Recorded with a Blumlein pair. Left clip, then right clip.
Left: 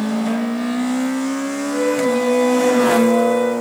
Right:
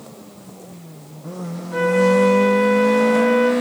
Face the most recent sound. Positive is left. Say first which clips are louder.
# right 3 dB
turn(degrees=-10)